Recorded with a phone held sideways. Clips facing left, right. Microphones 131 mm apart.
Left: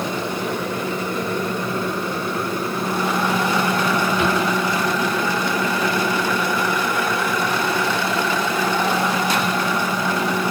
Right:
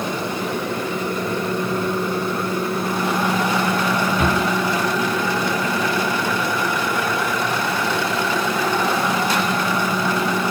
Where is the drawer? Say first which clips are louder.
Even; 45° right (ahead or behind), 3 m.